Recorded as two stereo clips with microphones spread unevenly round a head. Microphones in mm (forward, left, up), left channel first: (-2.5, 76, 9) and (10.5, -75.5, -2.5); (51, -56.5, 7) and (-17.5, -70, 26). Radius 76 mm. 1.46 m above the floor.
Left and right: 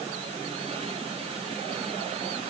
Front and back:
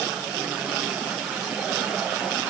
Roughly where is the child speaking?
I don't hear a child speaking.